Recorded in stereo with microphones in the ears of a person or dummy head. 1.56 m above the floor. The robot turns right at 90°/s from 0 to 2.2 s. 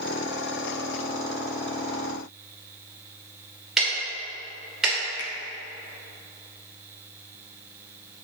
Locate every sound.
3.8 s ticking: 5° right (ahead or behind), 2.5 m
5.2 s a finger snap: 60° left (ahead or behind), 1.3 m